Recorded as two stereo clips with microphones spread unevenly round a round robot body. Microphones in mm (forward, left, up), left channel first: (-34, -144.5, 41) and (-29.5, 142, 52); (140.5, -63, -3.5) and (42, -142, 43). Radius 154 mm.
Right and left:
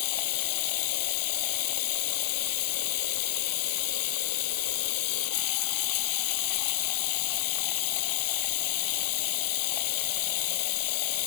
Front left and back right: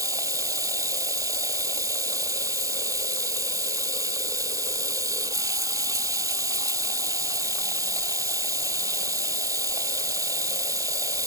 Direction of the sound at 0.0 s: 80° right.